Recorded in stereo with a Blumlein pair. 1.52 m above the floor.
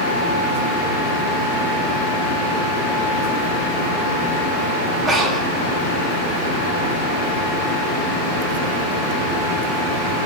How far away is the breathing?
About 4 m.